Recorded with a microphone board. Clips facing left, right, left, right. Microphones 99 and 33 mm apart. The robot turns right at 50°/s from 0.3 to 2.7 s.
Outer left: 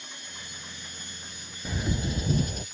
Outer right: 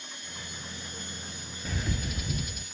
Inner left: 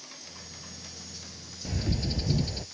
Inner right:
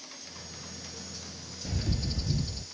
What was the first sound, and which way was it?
A bird, 10° left.